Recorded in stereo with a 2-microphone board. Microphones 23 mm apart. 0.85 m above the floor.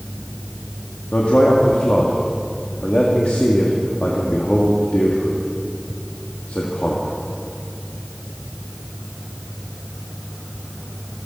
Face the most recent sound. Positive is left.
turn(degrees=65)  # may be behind; listen again after turning